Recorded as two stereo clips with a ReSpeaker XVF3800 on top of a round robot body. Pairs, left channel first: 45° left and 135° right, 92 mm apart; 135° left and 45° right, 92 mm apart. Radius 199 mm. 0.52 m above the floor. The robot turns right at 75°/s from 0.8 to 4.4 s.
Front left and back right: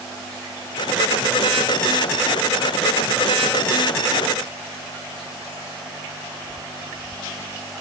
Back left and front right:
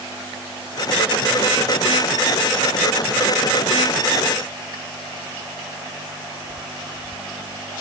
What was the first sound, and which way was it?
Only background noise.